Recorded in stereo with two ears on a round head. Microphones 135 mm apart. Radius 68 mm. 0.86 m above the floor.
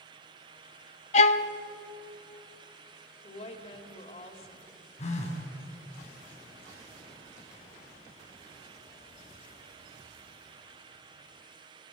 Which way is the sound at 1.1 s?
45° left (ahead or behind).